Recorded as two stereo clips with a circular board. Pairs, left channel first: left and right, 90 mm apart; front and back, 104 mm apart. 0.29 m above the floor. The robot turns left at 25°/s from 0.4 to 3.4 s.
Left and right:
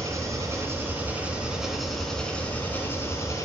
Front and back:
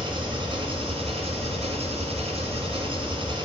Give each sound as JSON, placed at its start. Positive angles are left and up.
{"t": 0.0, "sound": "an engine running", "azimuth_deg": -145, "distance_m": 1.6}